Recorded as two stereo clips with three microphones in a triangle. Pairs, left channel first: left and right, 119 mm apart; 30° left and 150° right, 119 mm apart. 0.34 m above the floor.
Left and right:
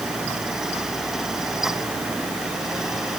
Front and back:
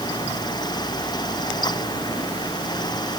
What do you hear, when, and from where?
Only background noise.